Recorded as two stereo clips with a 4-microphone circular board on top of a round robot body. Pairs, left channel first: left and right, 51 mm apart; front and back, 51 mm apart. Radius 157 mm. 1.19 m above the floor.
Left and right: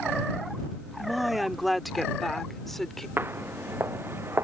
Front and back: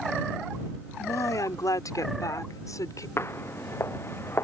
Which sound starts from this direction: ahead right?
Footsteps, at 3.2 s.